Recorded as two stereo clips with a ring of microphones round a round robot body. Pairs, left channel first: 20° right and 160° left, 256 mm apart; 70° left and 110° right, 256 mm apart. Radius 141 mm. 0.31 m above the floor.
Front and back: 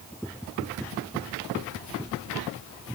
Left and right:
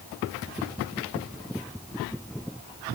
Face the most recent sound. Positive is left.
No sound to turn to.